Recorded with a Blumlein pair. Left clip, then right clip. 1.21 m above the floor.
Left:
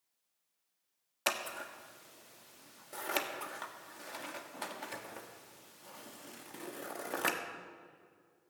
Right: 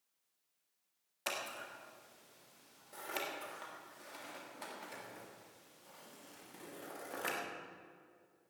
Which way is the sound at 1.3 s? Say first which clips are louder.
Left 5 dB; 70° left.